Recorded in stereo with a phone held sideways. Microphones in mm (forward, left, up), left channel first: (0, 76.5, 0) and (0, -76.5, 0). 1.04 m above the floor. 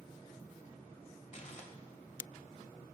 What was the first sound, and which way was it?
Crumpling, 50° left (ahead or behind).